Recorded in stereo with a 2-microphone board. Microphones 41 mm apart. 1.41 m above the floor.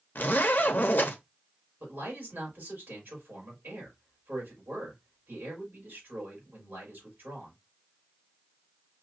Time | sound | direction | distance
0.1 | a zipper | 50° left (ahead or behind) | 0.8 m
1.8 | a man speaking | 50° right (ahead or behind) | 4 m